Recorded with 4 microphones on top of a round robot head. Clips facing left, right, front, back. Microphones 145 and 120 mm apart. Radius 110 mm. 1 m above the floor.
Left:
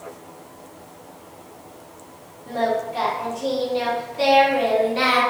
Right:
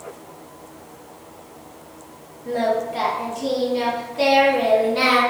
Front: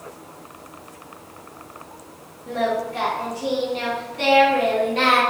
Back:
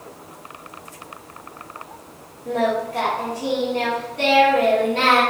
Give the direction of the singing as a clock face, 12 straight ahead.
4 o'clock.